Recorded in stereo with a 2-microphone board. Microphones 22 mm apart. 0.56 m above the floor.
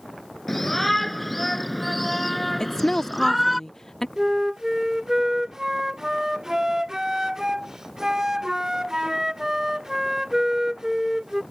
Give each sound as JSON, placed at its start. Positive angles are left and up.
{"t": 0.5, "sound": "a shout", "side_deg": 5}
{"t": 2.6, "sound": "a woman speaking", "side_deg": 20}
{"t": 4.2, "sound": "a flute", "side_deg": -25}